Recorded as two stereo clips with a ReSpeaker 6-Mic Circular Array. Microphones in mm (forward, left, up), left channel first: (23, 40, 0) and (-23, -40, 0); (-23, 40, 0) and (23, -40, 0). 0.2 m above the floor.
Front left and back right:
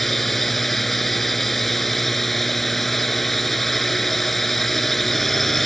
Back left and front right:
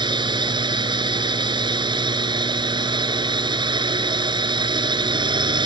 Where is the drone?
30° right.